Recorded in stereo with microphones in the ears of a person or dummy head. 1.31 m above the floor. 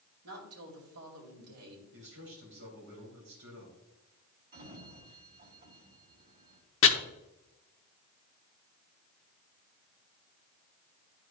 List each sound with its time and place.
0.2 s a woman speaking: 80° right, 2.5 m
1.9 s a man speaking: 65° right (ahead or behind), 3 m
4.5 s a sliding door: 50° right (ahead or behind), 2.5 m
6.8 s chopping: 55° left (ahead or behind), 0.8 m